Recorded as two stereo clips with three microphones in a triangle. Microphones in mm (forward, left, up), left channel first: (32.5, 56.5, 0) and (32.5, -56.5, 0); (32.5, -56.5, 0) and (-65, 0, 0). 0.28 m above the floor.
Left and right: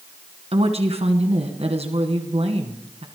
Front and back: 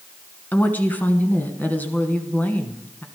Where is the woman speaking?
105° right, 2.5 m.